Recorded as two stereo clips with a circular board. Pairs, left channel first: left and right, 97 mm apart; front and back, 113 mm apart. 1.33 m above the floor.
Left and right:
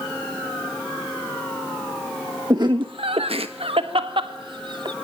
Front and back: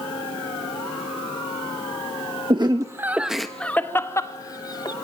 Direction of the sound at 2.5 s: 135° right.